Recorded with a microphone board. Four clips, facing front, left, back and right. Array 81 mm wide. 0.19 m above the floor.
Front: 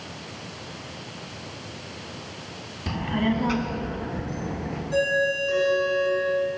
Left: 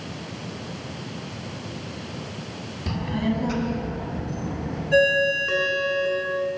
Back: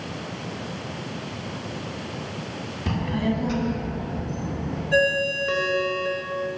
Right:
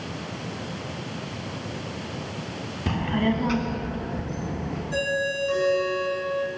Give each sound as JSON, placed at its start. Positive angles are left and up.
{"t": 2.9, "sound": "a child speaking", "azimuth_deg": -110, "distance_m": 0.7}
{"t": 4.9, "sound": "a ringtone", "azimuth_deg": 140, "distance_m": 1.6}